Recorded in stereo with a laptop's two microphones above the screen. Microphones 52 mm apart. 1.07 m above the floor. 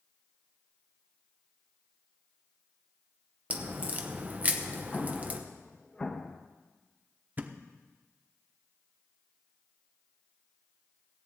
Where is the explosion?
20° left (ahead or behind), 0.8 m.